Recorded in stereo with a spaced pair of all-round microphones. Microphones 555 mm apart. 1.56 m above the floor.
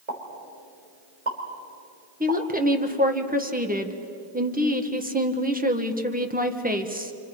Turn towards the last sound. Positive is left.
turn(degrees=-15)  # may be behind; listen again after turning